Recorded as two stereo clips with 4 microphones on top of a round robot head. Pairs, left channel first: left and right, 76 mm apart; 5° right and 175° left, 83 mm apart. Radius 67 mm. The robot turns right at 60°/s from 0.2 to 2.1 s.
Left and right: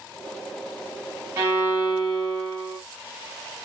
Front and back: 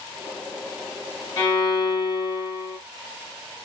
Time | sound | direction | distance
1.4 | a violin | 45° right | 1.7 m